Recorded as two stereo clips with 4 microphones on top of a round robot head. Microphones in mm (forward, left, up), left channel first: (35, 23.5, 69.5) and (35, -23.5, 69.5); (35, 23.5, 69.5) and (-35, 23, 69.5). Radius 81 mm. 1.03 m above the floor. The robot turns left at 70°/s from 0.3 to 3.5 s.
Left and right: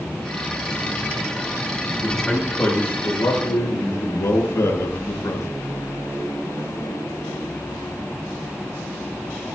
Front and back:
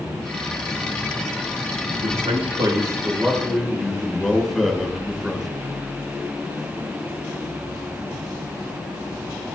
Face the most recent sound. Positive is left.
turn(degrees=85)